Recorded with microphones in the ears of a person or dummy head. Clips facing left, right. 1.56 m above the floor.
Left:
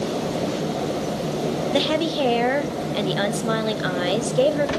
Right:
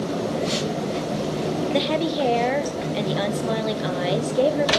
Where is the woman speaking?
10° left (ahead or behind), 0.5 m.